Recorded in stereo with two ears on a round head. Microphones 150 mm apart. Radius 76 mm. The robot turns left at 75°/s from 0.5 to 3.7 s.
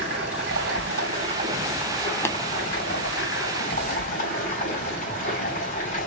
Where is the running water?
70° right, 3 m; by 6.1 s 50° left, 3 m.